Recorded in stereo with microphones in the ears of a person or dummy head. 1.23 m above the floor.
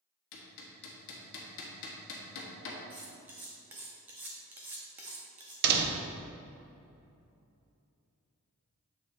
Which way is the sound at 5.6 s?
60° right (ahead or behind).